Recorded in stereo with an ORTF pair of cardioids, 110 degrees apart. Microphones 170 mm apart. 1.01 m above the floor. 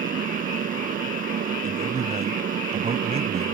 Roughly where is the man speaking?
Ahead right.